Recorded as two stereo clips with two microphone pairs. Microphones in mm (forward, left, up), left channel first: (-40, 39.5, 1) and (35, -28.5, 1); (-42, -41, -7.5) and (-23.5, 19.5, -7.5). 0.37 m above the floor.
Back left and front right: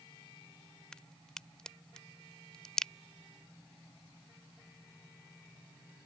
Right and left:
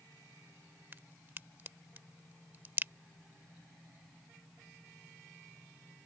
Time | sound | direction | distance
0.9 | a crack | 65° left | ?